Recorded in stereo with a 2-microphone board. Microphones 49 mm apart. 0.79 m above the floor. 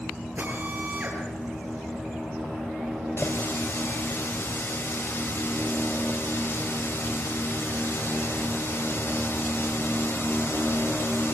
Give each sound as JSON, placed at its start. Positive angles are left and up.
{"t": 0.4, "sound": "a drill", "side_deg": -40, "distance_m": 8.0}
{"t": 3.2, "sound": "a running tap", "side_deg": 60, "distance_m": 3.0}